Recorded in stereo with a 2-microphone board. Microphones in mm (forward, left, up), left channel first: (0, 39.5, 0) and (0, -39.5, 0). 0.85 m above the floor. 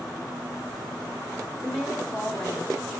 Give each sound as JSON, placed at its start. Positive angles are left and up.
{"t": 1.6, "sound": "a woman speaking", "side_deg": 20, "distance_m": 2.5}